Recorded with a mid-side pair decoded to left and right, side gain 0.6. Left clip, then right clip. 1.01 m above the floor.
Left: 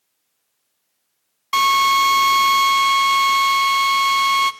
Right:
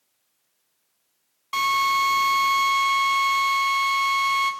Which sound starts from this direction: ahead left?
A drill, at 1.5 s.